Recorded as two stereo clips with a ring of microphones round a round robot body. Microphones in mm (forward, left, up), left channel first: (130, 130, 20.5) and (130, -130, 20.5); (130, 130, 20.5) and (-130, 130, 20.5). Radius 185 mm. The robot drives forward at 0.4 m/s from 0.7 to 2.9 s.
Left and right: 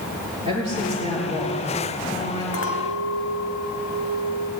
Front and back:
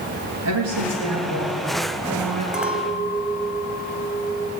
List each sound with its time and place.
0.5 s a woman speaking: 165° left, 5.5 m
2.5 s a clink: 90° left, 1.6 m; by 4.5 s 100° left, 1.6 m